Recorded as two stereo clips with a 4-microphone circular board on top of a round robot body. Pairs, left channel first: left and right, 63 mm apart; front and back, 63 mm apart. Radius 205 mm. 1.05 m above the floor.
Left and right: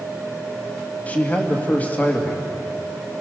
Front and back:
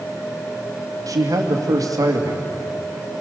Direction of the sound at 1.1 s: 155° left.